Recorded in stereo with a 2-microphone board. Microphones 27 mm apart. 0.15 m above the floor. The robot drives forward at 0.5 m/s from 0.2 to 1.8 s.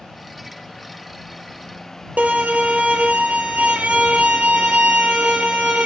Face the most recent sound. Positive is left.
turn(degrees=-80)